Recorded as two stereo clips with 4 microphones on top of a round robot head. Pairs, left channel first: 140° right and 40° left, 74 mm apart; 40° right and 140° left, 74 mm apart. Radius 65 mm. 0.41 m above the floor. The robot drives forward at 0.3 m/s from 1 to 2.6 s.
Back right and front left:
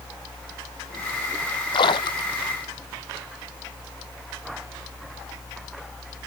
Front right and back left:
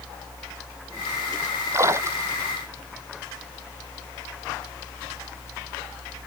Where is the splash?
165° right.